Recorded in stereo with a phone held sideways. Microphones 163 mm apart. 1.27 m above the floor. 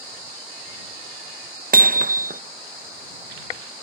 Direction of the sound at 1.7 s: 60° right (ahead or behind).